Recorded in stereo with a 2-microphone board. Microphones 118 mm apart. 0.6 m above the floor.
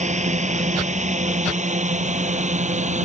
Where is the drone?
85° right.